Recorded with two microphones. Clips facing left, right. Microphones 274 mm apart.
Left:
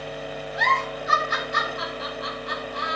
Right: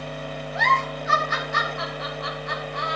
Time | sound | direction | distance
0.6 | a giggle | 40° left (ahead or behind) | 2.5 m